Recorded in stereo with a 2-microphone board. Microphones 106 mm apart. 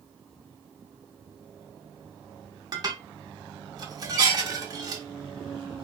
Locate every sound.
2.7 s dishes clattering: 35° right (ahead or behind), 0.6 m